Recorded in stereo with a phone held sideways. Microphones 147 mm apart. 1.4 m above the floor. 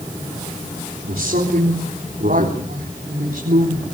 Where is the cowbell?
I don't hear a cowbell.